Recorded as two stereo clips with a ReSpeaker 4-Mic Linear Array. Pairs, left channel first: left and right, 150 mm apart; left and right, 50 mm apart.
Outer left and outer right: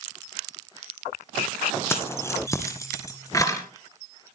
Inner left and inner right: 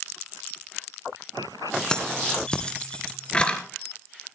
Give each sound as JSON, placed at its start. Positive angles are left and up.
{"t": 1.9, "sound": "keys jangling", "side_deg": 15, "distance_m": 1.5}